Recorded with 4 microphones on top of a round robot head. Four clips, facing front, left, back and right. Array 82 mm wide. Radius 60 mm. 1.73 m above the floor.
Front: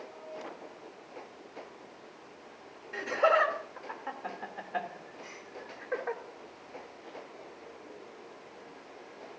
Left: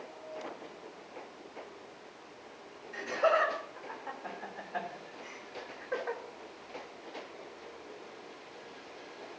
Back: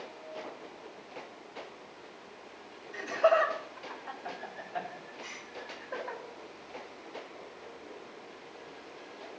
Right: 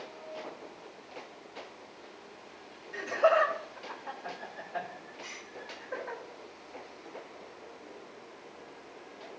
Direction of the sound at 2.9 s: 5° right.